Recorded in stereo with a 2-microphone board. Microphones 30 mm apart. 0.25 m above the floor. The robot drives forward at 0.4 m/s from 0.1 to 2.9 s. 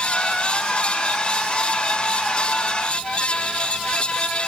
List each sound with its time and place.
Only background noise.